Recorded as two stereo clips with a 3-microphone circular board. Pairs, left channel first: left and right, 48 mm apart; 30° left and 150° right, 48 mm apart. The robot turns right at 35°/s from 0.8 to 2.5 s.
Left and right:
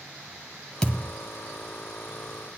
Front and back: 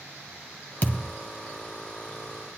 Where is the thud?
25° left, 1.4 m; by 1.1 s 35° left, 1.4 m.